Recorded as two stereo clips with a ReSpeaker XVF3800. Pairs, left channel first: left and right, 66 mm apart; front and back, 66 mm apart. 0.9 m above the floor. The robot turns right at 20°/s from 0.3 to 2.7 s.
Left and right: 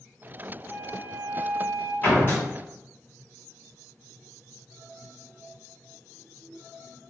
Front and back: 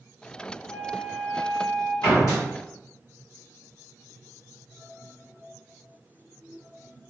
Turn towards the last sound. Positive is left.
turn(degrees=45)